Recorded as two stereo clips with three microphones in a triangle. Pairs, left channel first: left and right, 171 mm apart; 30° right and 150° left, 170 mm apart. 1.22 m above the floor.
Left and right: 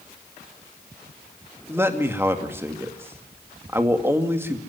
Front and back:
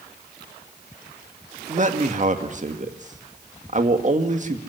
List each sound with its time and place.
1.7 s a man speaking: 165° right, 2 m